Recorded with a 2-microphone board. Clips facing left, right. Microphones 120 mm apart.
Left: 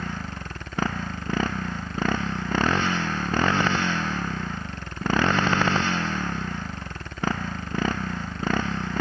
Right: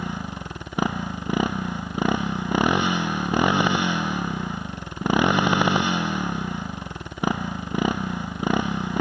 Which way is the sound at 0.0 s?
15° right (ahead or behind).